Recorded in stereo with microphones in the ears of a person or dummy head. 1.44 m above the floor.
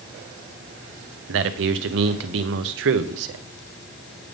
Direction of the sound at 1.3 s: 65° right (ahead or behind).